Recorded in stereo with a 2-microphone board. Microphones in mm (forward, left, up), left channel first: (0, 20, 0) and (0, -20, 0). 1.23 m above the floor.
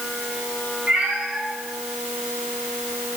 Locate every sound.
0.9 s a cat meowing: 30° right (ahead or behind), 5 m; by 3.2 s 25° right (ahead or behind), 6.5 m